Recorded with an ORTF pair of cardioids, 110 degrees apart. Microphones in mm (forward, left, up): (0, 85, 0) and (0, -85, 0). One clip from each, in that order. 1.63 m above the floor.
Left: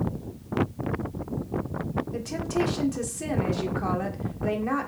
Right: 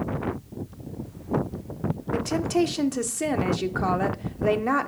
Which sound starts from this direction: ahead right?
A woman speaking, at 2.1 s.